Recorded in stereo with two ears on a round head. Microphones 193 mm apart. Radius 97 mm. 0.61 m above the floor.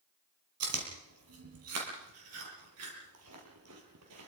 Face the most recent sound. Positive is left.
turn(degrees=-80)